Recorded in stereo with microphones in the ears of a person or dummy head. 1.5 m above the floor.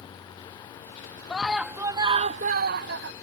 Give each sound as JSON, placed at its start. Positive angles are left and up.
{"t": 1.3, "sound": "a scream", "side_deg": 0}